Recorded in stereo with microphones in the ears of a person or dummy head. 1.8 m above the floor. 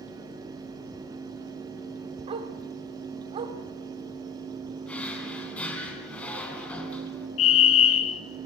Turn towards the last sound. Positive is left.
turn(degrees=70)  # may be behind; listen again after turning